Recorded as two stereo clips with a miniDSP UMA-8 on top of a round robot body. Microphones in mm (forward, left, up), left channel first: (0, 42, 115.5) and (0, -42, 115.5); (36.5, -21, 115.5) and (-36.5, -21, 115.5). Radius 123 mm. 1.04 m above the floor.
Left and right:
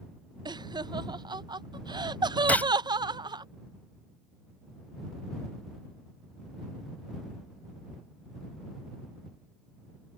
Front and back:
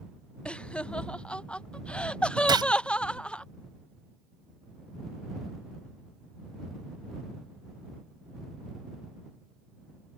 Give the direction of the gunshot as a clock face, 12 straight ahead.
7 o'clock.